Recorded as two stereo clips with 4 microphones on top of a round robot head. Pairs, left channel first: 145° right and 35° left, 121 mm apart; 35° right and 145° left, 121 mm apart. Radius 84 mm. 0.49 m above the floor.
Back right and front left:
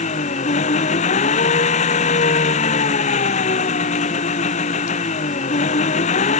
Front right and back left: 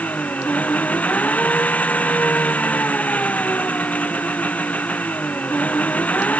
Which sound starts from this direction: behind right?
An engine running, at 0.0 s.